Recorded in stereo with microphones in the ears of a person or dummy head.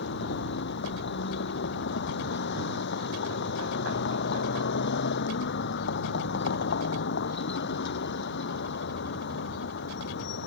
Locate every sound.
0.0 s a vehicle: 65° left (ahead or behind)